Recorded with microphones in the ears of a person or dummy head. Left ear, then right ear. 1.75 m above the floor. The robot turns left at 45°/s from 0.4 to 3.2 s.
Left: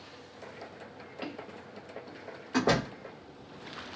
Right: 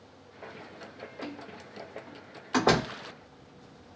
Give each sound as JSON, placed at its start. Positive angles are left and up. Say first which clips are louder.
{"t": 1.2, "sound": "footsteps", "louder": "left 2 dB", "side_deg": 20, "distance_m": 1.8}
{"t": 2.5, "sound": "a door slam", "louder": "right 3 dB", "side_deg": -15, "distance_m": 0.5}